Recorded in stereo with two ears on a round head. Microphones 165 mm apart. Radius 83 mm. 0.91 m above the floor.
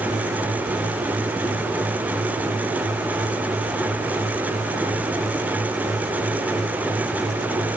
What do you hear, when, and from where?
Only background noise.